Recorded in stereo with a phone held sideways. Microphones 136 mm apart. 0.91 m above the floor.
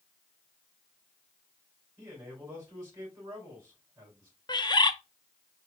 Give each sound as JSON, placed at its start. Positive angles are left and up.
{"t": 2.0, "sound": "a man speaking", "side_deg": -25, "distance_m": 3.5}
{"t": 4.5, "sound": "a bird", "side_deg": 30, "distance_m": 0.5}